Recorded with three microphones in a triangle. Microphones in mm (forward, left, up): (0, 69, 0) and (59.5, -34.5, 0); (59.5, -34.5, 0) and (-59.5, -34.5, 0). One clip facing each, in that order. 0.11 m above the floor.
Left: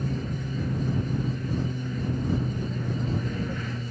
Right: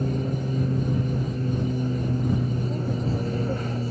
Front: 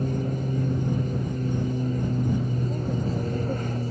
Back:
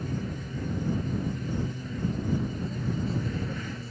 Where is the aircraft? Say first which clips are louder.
Right 5 dB, front 7 dB; 25° right.